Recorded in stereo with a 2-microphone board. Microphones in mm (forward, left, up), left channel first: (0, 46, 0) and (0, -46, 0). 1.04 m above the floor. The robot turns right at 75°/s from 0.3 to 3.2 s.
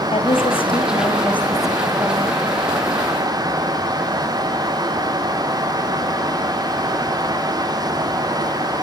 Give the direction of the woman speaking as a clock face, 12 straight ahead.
9 o'clock.